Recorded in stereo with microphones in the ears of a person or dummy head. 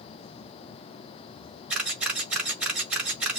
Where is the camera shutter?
5° right (ahead or behind), 1.5 m.